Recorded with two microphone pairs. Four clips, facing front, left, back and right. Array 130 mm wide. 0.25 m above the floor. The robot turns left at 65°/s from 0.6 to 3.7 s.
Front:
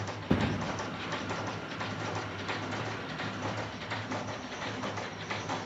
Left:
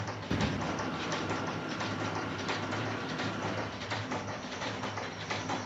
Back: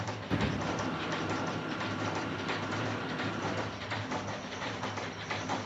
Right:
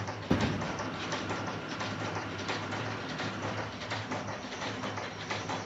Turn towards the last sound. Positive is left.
turn(degrees=120)